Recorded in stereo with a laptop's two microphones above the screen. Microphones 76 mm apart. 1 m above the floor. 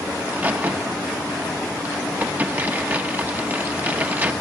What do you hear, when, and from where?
0.2 s a crack: 25° right (ahead or behind), 0.9 m